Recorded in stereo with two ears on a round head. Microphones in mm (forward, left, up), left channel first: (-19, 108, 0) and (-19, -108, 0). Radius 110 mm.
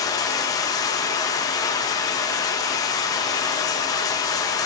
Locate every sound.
0.0 s running water: 15° left (ahead or behind), 0.7 m